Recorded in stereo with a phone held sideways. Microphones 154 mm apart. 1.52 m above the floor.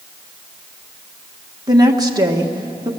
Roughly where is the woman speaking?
Right.